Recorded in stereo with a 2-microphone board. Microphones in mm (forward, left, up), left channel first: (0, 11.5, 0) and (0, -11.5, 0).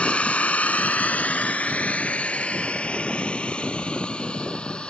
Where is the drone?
50° left (ahead or behind); by 4.9 s 45° left (ahead or behind).